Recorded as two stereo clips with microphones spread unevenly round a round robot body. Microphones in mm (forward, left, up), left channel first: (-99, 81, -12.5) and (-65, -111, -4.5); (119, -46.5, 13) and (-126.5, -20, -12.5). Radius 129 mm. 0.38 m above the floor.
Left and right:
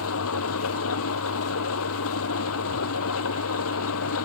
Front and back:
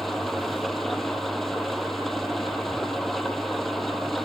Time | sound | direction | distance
0.0 | an engine running | 85° left | ?